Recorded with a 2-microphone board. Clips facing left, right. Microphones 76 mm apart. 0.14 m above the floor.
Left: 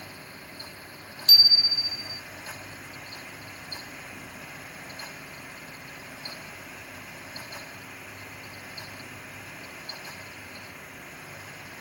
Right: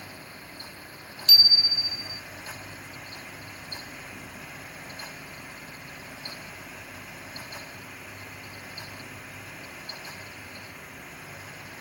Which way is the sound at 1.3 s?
35° left (ahead or behind).